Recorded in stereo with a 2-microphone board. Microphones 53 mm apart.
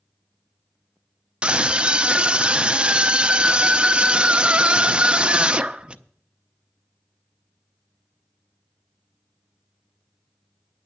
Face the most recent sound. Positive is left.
turn(degrees=-15)  # may be behind; listen again after turning